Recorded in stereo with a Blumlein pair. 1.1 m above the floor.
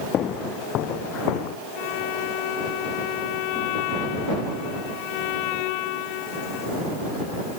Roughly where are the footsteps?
Ahead left.